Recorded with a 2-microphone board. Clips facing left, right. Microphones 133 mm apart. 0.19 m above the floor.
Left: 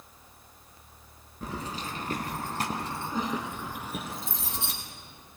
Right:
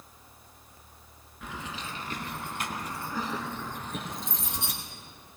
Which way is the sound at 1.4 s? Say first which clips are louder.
Left 3 dB; 40° left (ahead or behind).